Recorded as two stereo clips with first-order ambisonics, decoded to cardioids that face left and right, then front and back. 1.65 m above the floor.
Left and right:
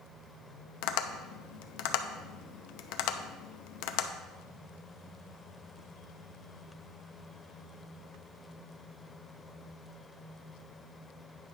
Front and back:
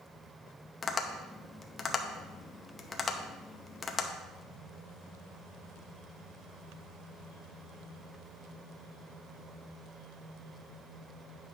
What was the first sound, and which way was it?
Tapping, 75° left.